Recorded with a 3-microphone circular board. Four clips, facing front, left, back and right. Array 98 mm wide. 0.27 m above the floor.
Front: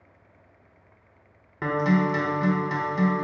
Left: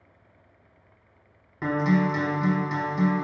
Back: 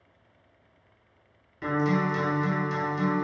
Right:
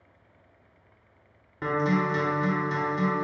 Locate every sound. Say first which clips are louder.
1.6 s a guitar: left 2 dB, front 3 dB; 10° left, 0.9 m